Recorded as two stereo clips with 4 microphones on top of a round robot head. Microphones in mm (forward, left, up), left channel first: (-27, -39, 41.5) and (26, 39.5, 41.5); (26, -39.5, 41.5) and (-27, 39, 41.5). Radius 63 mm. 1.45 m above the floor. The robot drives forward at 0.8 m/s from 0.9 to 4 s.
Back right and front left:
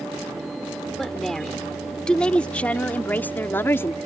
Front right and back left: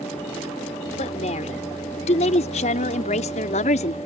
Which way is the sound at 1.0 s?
35° right.